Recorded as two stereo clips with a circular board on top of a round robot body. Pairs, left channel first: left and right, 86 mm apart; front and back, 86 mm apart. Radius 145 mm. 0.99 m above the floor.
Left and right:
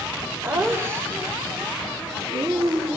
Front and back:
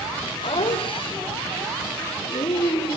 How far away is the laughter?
About 3.5 m.